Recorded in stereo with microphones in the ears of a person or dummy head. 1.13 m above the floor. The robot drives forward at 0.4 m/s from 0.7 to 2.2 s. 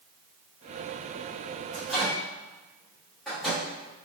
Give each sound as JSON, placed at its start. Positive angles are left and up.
{"t": 1.7, "sound": "a microwave", "side_deg": -5, "distance_m": 1.3}